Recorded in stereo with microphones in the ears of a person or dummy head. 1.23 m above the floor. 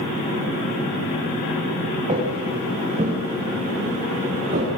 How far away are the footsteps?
About 5 m.